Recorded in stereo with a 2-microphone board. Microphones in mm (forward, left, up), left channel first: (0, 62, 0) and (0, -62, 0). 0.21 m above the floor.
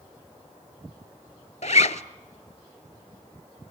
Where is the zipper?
70° left (ahead or behind), 0.6 m.